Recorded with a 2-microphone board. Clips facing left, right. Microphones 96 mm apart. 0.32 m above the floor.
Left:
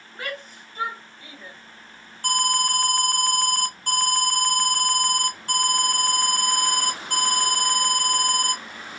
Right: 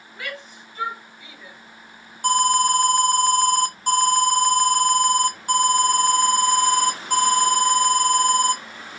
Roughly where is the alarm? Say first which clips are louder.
Right 6 dB; centre.